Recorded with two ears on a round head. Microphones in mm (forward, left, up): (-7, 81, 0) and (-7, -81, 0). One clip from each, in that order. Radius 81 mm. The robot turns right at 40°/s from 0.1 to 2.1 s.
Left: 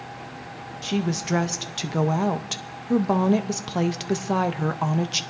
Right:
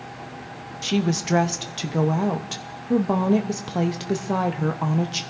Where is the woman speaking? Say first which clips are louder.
Right 3 dB; 20° right, 0.7 m; by 5.2 s 30° left, 0.7 m.